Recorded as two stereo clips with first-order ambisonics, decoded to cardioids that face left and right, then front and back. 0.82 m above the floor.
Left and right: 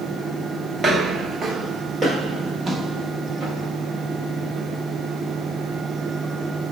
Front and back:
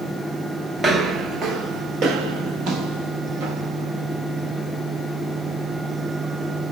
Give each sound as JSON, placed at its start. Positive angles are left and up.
{"t": 0.8, "sound": "footsteps", "azimuth_deg": -130, "distance_m": 0.8}